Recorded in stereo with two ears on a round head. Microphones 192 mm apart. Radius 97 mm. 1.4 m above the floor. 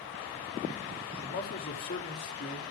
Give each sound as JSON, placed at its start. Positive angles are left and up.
{"t": 1.2, "sound": "a man speaking", "side_deg": 45, "distance_m": 3.5}